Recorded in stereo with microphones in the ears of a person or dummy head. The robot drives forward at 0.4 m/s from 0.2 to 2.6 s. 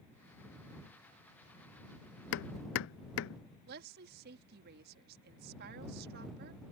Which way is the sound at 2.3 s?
70° left (ahead or behind).